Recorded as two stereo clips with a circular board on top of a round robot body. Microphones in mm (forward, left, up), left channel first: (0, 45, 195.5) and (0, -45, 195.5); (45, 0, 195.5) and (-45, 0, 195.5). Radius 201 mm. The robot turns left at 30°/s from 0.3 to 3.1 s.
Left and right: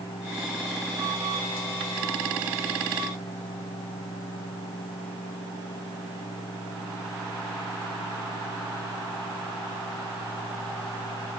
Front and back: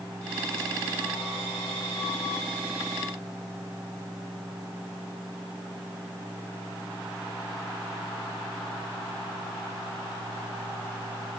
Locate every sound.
Only background noise.